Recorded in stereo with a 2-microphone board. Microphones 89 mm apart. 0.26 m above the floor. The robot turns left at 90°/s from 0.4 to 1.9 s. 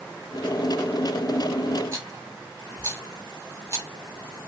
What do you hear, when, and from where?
1.9 s a rattle: 35° right (ahead or behind), 1.1 m